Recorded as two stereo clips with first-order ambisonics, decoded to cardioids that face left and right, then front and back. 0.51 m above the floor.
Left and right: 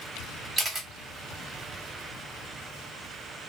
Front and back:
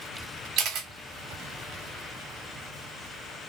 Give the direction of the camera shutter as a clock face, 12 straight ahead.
5 o'clock.